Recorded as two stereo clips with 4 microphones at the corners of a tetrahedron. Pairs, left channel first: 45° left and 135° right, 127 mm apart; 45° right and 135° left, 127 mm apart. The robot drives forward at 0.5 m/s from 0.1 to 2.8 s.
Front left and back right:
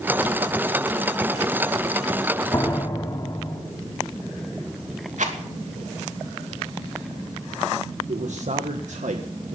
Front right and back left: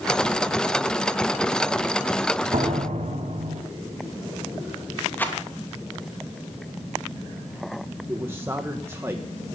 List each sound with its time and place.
2.5 s a door slam: 110° left, 3 m
5.2 s a rattle: 120° right, 2.5 m
8.1 s a man speaking: 155° right, 1.4 m